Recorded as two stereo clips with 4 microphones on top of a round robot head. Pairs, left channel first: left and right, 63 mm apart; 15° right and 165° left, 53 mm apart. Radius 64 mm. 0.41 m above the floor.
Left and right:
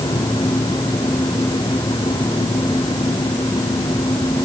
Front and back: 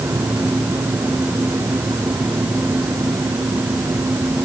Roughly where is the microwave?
No microwave in this recording.